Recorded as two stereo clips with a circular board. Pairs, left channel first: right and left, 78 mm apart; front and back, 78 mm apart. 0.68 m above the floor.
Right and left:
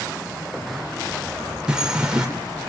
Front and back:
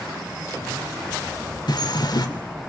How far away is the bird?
About 3 m.